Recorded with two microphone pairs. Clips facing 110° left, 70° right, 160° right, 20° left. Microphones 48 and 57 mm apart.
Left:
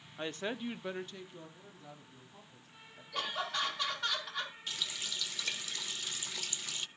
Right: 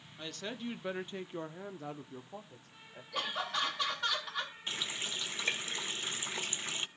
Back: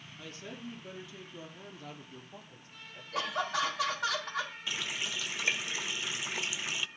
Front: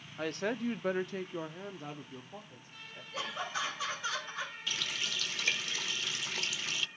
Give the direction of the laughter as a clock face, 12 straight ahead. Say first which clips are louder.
Right 1 dB, back 5 dB; 5 o'clock.